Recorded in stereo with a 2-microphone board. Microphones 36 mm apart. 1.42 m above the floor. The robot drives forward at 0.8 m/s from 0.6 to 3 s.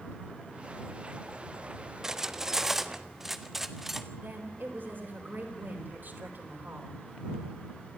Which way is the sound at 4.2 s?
60° right (ahead or behind).